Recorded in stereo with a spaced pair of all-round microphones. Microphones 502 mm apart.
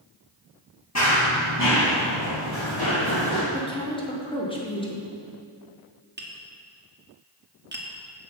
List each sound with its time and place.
0.9 s running footsteps: 30° left (ahead or behind), 1.7 m; by 3.4 s 50° left (ahead or behind), 3 m
3.5 s a woman speaking: 10° left (ahead or behind), 1.2 m
6.2 s tapping: 20° right (ahead or behind), 1.0 m